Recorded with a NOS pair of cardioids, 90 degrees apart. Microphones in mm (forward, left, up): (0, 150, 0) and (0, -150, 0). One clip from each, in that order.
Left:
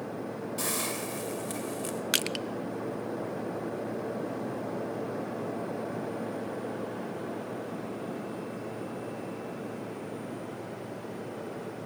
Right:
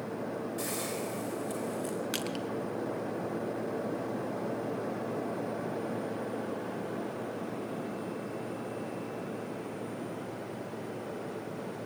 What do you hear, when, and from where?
0.6 s a hiss: 50° left, 4.5 m
2.1 s crushing: 50° left, 1.0 m